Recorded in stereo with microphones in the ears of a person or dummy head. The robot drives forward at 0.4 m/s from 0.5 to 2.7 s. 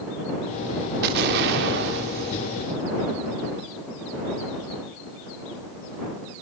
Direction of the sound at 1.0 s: 60° right (ahead or behind).